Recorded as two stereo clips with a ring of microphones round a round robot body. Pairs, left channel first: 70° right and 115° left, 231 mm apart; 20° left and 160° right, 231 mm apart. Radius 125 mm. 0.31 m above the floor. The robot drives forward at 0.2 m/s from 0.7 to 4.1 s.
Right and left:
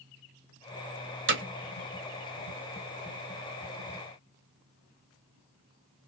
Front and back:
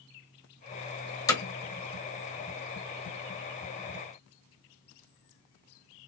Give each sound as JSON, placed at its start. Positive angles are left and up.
{"t": 1.3, "sound": "hammering", "azimuth_deg": 95, "distance_m": 1.0}